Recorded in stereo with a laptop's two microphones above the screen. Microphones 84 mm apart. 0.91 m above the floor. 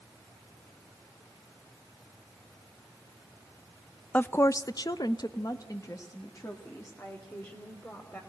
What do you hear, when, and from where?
4.1 s a woman speaking: 15° left (ahead or behind), 0.5 m; by 8.2 s 35° left (ahead or behind), 3 m